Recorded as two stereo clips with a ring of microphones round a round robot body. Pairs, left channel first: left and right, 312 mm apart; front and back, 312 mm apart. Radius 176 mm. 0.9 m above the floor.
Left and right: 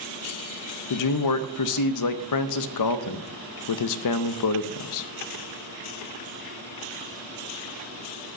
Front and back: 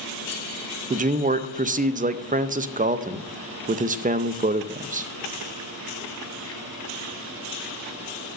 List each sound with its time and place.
0.9 s a man speaking: 115° left, 0.6 m